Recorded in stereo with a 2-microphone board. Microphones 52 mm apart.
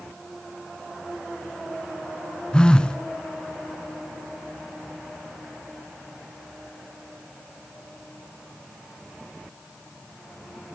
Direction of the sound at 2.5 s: 20° left (ahead or behind).